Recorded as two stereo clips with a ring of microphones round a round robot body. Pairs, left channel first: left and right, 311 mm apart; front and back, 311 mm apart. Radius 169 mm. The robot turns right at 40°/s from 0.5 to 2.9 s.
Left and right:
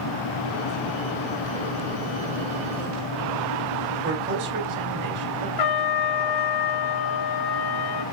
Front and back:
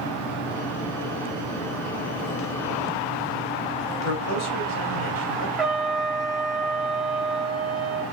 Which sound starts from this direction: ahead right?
A man speaking, at 4.0 s.